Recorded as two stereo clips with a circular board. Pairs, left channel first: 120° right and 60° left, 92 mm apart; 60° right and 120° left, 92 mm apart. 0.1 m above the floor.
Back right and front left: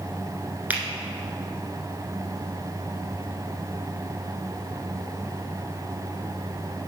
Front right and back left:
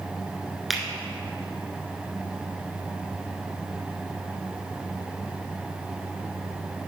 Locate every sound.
0.7 s a finger snap: 35° left, 1.2 m